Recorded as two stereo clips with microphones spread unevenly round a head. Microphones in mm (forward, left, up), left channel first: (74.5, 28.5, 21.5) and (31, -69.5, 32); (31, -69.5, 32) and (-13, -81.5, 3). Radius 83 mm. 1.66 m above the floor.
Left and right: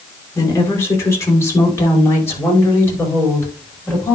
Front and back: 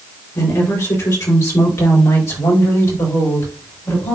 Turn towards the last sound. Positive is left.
turn(degrees=-5)